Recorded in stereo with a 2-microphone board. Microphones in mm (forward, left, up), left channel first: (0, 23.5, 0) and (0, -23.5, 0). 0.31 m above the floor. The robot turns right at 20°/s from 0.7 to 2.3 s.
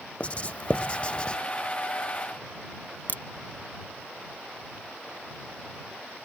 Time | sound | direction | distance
0.2 | writing | 30° left (ahead or behind) | ?
3.1 | a crack | 45° left (ahead or behind) | ?